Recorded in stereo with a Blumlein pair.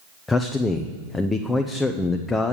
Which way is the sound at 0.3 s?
10° left.